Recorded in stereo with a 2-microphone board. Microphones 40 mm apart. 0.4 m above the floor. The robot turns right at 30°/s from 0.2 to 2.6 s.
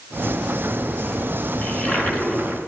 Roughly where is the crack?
I don't hear a crack.